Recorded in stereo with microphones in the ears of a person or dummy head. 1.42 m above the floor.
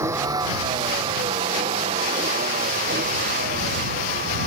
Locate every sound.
0.0 s a vehicle: 15° right (ahead or behind); by 4.5 s 45° right (ahead or behind)